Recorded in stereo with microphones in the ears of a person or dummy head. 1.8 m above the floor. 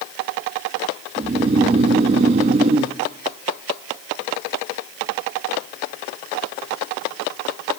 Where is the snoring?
35° right (ahead or behind), 0.7 m.